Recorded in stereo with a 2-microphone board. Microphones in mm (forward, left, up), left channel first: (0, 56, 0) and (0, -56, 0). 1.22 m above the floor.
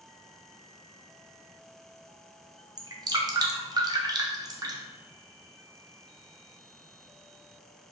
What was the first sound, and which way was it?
Dripping, 35° right (ahead or behind).